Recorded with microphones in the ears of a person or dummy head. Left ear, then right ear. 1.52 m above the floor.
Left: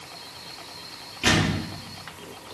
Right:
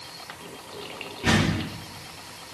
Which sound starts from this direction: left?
A door slam, at 1.2 s.